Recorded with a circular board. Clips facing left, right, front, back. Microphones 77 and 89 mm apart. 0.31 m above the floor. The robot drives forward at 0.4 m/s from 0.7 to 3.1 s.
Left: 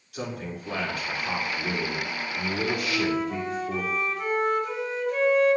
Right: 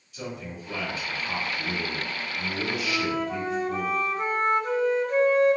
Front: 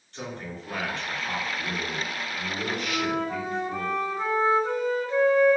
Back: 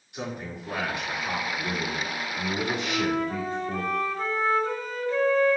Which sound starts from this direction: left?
A man speaking, at 0.1 s.